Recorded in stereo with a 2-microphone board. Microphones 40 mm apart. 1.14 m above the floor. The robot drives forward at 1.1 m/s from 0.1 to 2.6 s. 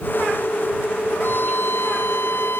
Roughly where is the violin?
Left.